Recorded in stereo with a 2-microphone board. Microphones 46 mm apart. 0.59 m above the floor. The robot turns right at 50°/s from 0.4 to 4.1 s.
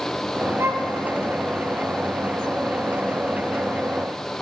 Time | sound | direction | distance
0.6 | a violin | 85° right | 0.9 m